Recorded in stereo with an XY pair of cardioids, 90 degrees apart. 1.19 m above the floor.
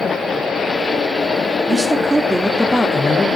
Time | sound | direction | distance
1.7 | a man speaking | 20° right | 3 m